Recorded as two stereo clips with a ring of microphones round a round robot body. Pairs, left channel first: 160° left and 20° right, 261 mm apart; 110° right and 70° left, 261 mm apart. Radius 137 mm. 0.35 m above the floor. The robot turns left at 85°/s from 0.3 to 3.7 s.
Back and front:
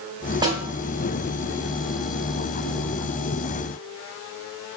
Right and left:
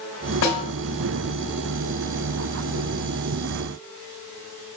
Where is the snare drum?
95° right, 2 m; by 0.6 s 115° right, 2 m.